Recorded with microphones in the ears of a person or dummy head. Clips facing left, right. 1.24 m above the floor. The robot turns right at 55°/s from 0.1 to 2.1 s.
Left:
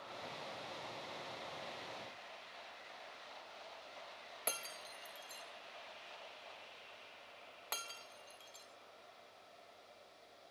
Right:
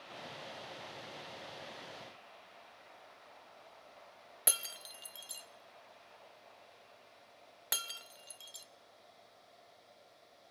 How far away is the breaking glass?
About 0.6 m.